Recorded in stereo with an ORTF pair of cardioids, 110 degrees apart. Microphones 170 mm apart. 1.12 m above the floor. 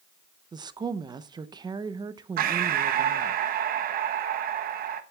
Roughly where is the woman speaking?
Ahead right.